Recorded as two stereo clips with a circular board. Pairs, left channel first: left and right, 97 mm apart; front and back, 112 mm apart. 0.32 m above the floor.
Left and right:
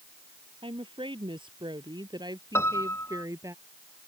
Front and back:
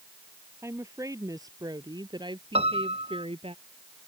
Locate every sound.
0.6 s a woman speaking: 115° right; by 3.5 s 145° right
2.5 s a piano: 155° left